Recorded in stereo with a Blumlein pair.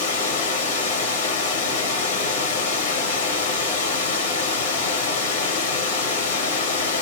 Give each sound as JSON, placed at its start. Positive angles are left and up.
{"t": 0.0, "sound": "running water", "azimuth_deg": 65, "distance_m": 1.8}